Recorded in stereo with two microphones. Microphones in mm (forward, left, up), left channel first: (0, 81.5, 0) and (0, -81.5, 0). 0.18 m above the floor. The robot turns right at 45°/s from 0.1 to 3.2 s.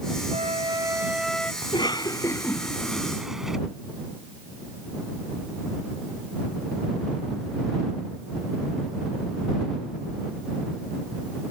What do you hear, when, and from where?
0.3 s a flute: 45° right; by 1.5 s 10° left
1.6 s a cough: 30° left (ahead or behind); by 3.6 s 5° right (ahead or behind)